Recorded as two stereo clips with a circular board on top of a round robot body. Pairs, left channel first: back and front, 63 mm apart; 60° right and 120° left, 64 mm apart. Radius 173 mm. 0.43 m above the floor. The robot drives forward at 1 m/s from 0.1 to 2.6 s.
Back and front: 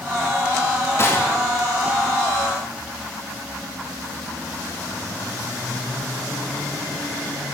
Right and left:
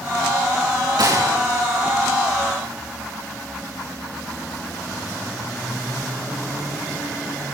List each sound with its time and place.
1.0 s a gunshot: 130° left, 7 m; by 1.4 s 135° left, 7 m